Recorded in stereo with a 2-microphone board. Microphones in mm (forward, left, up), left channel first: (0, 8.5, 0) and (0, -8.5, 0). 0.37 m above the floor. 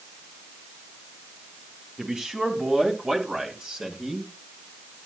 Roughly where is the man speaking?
Right.